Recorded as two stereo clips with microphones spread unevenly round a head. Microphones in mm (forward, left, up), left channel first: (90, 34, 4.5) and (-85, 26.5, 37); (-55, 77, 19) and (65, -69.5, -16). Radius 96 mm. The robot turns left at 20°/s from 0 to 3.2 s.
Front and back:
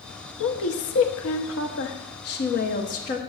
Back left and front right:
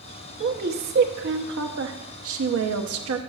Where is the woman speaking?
Straight ahead, 0.8 m; by 3.2 s 55° right, 0.8 m.